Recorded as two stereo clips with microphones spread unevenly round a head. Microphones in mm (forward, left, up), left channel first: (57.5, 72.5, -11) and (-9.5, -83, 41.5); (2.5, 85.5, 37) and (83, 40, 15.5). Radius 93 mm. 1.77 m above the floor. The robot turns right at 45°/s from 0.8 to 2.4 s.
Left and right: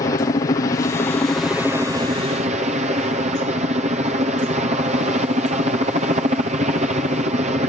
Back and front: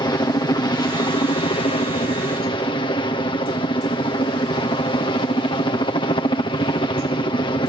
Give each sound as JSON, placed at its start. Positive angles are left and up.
{"t": 0.0, "sound": "a helicopter", "azimuth_deg": 115}